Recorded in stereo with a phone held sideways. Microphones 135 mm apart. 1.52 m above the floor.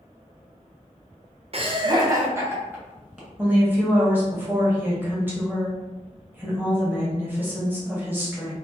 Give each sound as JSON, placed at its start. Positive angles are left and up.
{"t": 1.5, "sound": "laughter", "side_deg": -50, "distance_m": 0.6}
{"t": 3.4, "sound": "a woman speaking", "side_deg": -15, "distance_m": 1.0}